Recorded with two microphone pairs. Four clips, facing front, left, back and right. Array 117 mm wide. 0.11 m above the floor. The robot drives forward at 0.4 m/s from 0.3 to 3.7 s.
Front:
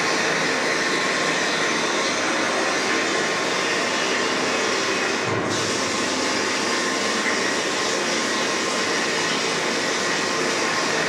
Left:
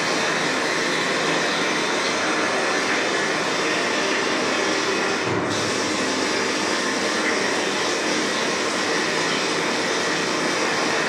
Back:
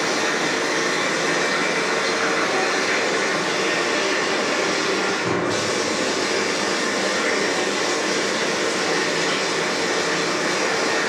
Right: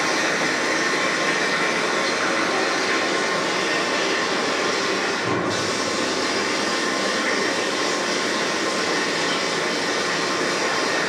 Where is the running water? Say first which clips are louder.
Even, even; 60° right, 1.1 m; by 11.1 s 155° right, 1.5 m.